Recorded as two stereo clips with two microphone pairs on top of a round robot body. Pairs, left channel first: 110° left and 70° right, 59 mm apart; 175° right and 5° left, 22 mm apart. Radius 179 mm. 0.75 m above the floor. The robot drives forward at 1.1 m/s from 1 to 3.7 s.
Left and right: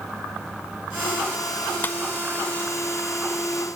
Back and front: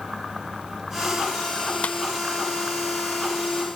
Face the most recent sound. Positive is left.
turn(degrees=170)